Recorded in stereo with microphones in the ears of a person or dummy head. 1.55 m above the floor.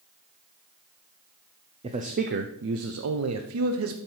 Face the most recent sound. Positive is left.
turn(degrees=-70)  # may be behind; listen again after turning